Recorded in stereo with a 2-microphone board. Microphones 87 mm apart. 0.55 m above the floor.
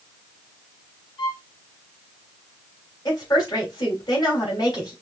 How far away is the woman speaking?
About 3 m.